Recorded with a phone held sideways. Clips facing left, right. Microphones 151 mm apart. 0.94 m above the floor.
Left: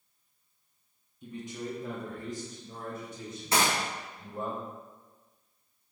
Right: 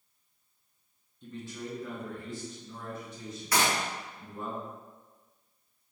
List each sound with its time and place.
1.2 s a man speaking: 10° left (ahead or behind), 0.9 m; by 4.5 s 65° left (ahead or behind), 2 m
3.5 s a gunshot: 25° left (ahead or behind), 1.3 m